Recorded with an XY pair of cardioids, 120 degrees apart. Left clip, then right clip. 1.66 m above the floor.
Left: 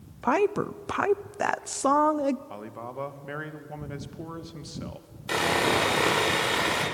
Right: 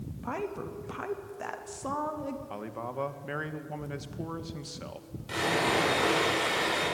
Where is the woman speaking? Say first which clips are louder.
Left 11 dB; 65° left, 0.8 m.